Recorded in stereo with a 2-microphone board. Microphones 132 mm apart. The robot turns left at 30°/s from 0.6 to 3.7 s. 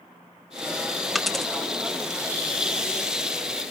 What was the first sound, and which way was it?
A dropped coin, centre (ahead or behind).